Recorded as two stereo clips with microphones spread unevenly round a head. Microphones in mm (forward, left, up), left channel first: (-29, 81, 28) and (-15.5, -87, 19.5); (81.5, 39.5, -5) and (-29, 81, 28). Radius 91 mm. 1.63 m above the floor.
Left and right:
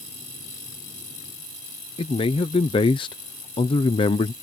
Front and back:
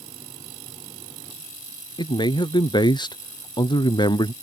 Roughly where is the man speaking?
Ahead left.